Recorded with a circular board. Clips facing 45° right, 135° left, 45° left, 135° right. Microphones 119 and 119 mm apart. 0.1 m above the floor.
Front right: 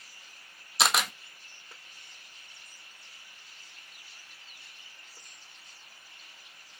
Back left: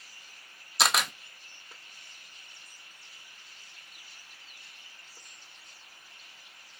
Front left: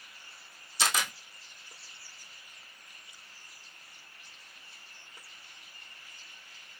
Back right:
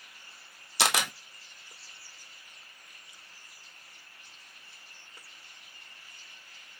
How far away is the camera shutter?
About 0.8 m.